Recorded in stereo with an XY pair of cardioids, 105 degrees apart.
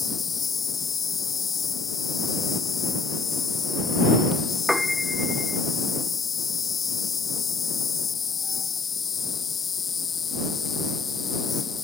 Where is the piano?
Straight ahead.